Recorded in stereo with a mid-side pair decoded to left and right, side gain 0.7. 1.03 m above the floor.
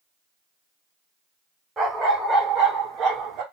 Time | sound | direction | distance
1.8 | a dog barking | 25° right | 1.7 m